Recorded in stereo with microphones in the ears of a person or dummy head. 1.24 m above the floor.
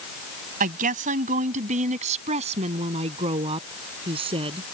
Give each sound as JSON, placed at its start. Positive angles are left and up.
{"t": 0.6, "sound": "a woman speaking", "side_deg": -45}